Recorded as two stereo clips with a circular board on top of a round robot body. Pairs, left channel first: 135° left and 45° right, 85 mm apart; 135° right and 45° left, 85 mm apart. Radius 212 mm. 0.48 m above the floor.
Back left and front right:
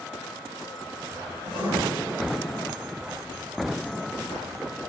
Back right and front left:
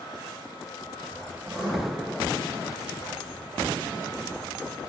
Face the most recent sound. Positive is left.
turn(degrees=-45)